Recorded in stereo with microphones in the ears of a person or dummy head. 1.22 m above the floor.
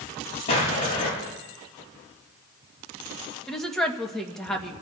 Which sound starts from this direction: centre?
A woman speaking, at 3.5 s.